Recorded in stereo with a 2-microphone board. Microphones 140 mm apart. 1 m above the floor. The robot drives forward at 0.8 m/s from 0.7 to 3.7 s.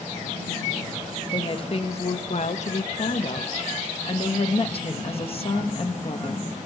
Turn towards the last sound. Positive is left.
turn(degrees=45)  # may be behind; listen again after turning